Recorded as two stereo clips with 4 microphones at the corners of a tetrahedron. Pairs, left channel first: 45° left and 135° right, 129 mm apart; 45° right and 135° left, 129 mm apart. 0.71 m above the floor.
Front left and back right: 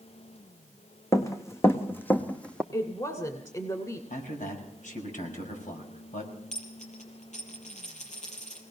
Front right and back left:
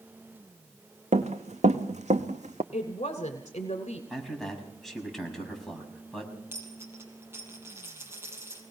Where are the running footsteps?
110° left, 2 m; by 2.6 s 125° left, 1.7 m.